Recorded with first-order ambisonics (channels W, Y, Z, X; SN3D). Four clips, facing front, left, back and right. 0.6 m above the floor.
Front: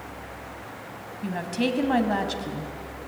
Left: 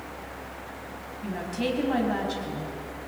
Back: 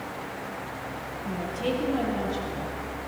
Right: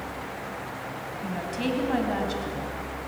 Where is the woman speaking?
5° right, 3.5 m.